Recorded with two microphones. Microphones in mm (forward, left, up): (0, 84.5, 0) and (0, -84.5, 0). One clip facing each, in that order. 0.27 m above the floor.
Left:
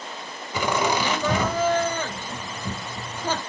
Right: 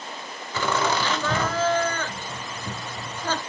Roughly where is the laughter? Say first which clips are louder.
Left 1 dB; centre.